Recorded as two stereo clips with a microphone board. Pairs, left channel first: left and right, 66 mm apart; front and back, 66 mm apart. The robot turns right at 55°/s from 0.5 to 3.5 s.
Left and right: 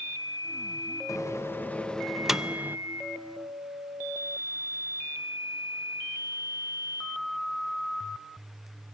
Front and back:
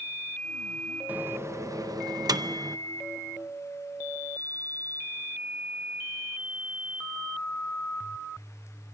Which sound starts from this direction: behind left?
A microwave, at 1.1 s.